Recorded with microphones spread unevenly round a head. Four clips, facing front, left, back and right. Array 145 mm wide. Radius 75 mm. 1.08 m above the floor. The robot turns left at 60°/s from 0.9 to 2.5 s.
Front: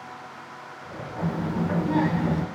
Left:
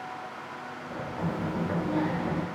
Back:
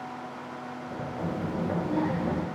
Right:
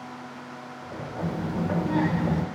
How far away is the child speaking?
About 3 m.